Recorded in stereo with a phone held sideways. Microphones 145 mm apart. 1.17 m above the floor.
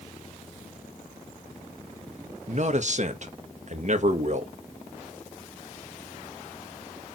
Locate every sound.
2.5 s a man speaking: 55° right (ahead or behind), 1.5 m